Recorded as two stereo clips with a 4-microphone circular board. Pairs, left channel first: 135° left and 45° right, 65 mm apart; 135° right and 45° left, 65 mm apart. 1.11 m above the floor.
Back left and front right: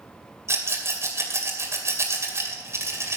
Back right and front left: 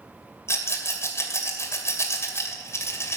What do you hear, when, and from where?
0.5 s a rattle: 90° right, 2 m